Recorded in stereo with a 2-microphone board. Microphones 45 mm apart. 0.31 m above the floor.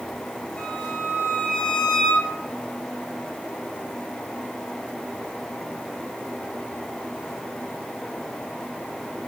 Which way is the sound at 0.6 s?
30° left (ahead or behind).